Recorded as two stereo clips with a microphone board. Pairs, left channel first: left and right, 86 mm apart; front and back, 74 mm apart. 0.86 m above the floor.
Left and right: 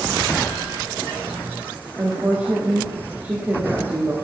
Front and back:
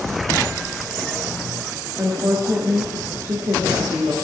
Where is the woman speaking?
150° right, 1.9 m.